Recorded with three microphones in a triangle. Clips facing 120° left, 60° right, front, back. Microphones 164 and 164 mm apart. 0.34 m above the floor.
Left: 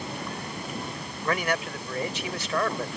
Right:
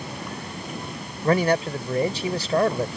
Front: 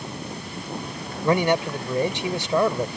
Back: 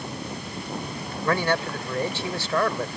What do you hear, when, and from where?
1.2 s a man speaking: 55° right